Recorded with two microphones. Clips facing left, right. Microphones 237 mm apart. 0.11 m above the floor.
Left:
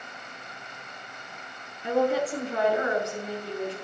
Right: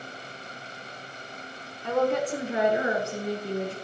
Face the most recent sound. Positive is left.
turn(degrees=-50)  # may be behind; listen again after turning